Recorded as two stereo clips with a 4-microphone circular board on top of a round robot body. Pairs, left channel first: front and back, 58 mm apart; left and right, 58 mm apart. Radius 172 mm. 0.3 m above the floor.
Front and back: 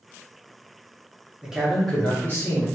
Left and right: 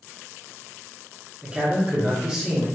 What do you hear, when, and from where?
1.4 s a man speaking: 120° right, 1.0 m; by 2.7 s 15° right, 1.3 m